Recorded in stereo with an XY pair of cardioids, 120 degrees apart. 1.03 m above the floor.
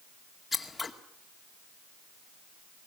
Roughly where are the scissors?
Ahead.